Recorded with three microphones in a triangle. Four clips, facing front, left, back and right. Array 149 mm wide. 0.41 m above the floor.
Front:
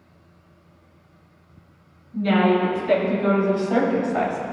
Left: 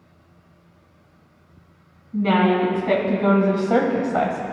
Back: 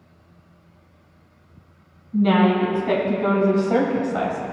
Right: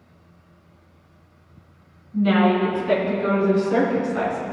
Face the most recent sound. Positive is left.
turn(degrees=65)